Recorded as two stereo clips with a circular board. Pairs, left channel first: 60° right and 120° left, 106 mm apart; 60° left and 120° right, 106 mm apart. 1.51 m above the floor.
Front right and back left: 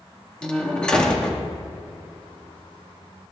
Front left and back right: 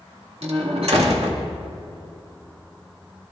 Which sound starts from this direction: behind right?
A door slam, at 0.4 s.